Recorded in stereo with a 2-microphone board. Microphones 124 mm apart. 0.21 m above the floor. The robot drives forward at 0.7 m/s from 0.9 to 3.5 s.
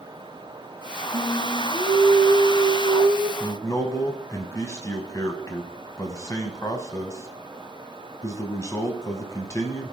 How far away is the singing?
About 1.3 m.